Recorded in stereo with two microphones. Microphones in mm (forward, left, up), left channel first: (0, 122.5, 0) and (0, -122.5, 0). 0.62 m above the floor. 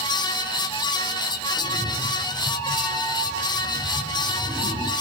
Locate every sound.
1.6 s a cat meowing: 10° left (ahead or behind), 8.5 m; by 4.9 s 20° left (ahead or behind), 9.5 m